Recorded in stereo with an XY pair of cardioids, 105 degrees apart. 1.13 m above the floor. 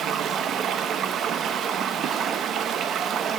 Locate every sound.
0.0 s running water: 60° right, 0.7 m